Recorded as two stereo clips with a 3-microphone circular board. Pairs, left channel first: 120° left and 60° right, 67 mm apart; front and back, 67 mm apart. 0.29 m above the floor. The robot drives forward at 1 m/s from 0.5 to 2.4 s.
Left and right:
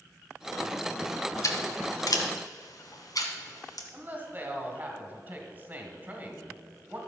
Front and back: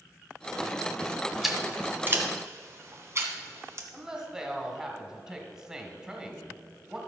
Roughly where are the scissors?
Left.